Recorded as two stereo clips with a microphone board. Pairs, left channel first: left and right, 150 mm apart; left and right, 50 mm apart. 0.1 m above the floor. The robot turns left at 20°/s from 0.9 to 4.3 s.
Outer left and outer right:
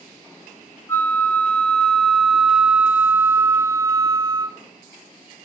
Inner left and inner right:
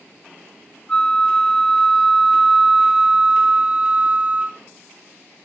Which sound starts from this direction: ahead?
A flute, at 0.9 s.